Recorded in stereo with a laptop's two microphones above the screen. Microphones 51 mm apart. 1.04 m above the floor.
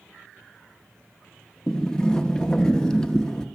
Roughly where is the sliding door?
Centre.